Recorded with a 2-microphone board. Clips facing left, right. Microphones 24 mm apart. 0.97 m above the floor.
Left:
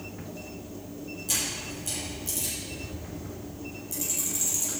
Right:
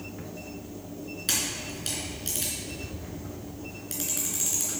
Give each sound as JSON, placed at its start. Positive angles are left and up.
{"t": 1.3, "sound": "a camera shutter", "side_deg": -70, "distance_m": 4.0}